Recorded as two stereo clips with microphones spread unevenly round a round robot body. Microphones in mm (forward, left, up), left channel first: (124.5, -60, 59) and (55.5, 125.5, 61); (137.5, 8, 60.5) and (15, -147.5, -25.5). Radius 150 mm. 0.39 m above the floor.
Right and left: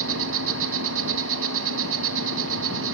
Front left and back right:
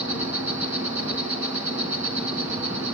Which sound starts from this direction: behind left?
An insect, at 0.0 s.